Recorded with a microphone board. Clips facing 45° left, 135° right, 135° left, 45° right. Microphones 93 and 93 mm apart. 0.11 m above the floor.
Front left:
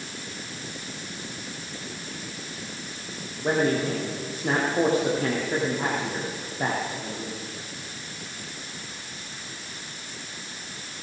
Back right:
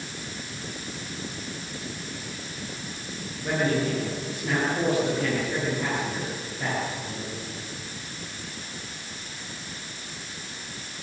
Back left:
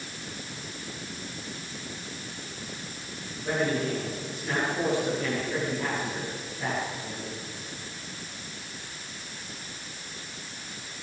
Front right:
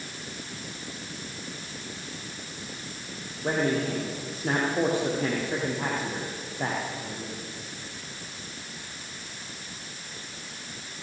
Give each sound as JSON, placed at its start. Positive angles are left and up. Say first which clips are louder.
{"t": 3.4, "sound": "a man speaking", "louder": "front left 2 dB, front right 1 dB", "azimuth_deg": 0, "distance_m": 7.5}